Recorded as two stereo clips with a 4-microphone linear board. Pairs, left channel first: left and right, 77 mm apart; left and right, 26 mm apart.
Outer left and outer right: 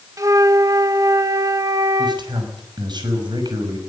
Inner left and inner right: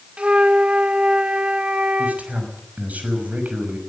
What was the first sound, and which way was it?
A flute, 45° right (ahead or behind).